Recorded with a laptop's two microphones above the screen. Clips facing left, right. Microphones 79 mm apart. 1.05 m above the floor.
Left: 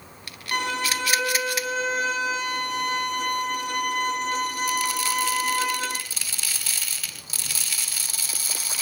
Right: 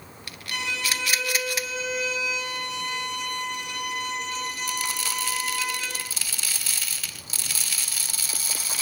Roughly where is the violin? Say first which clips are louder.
Left 4 dB; left.